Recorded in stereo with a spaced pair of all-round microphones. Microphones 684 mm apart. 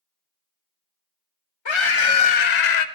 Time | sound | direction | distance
1.6 | a scream | 40° left (ahead or behind) | 1.0 m